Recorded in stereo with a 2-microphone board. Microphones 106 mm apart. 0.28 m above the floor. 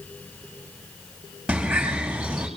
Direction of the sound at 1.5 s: 10° right (ahead or behind).